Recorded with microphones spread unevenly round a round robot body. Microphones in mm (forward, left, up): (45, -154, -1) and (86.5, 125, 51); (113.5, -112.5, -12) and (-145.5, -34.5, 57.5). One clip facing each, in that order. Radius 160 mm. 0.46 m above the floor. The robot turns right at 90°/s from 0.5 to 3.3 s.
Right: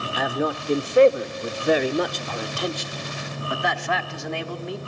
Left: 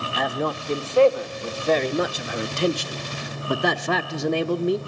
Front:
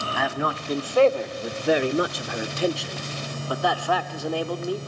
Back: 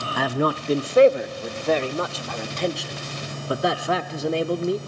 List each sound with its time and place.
0.2 s a man speaking: 160° right, 0.8 m; by 4.8 s 90° left, 0.8 m